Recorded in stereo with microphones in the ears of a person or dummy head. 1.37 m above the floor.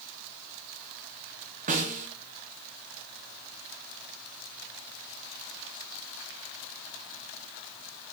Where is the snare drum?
35° right (ahead or behind), 0.9 m.